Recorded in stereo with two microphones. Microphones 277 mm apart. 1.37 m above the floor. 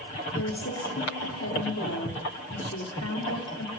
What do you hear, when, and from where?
0.3 s a woman speaking: 70° left (ahead or behind), 3.5 m